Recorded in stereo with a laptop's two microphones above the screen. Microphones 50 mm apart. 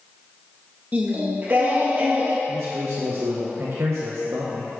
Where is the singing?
40° right (ahead or behind), 0.9 m.